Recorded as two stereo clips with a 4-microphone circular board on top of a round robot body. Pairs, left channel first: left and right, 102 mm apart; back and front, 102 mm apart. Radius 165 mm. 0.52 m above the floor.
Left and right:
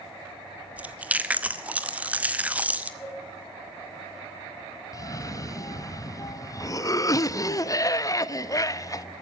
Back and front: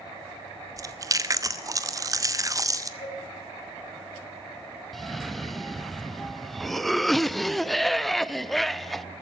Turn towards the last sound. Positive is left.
turn(degrees=95)